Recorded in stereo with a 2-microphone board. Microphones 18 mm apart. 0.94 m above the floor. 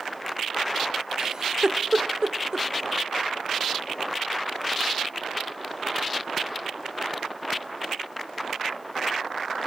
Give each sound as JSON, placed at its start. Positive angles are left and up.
{"t": 1.2, "sound": "a giggle", "side_deg": -40, "distance_m": 1.2}